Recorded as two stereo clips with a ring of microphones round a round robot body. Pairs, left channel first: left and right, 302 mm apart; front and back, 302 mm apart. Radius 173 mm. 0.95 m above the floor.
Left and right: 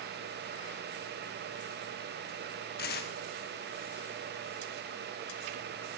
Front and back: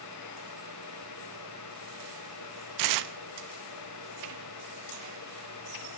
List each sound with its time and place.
2.8 s tearing paper: 155° left, 0.6 m